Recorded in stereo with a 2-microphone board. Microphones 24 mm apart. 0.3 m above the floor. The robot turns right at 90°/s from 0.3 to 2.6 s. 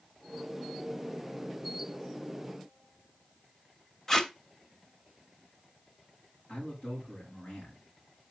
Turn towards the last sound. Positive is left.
turn(degrees=40)  # may be behind; listen again after turning